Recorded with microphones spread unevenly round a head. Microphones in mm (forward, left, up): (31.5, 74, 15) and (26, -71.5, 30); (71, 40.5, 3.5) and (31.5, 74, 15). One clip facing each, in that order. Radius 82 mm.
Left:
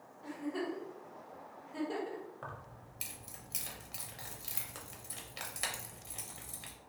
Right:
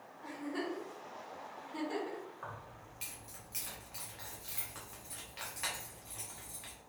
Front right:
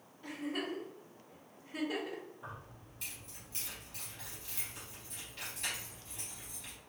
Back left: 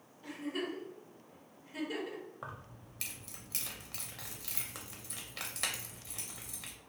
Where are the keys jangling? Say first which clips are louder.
Even, back left 2 dB; 145° left, 0.6 m.